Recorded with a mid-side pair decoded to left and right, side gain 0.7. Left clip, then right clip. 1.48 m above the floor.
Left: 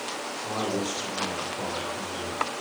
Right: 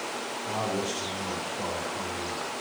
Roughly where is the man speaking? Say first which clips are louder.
Left 1 dB; ahead.